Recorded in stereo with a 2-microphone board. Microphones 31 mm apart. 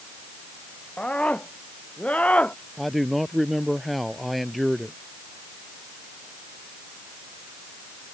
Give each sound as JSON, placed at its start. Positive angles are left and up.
{"t": 1.0, "sound": "a scream", "side_deg": 45}
{"t": 2.8, "sound": "a man speaking", "side_deg": 0}